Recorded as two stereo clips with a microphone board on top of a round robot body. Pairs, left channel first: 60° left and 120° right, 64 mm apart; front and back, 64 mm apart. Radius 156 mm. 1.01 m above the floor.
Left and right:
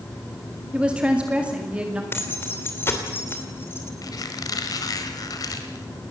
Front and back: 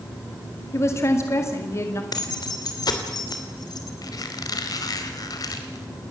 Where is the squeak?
30° left, 1.4 m.